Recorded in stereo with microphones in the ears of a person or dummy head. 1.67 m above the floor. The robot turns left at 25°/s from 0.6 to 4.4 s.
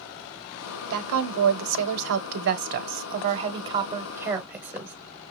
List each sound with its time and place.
0.9 s a woman speaking: 80° right, 1.0 m; by 5.0 s 165° right, 1.0 m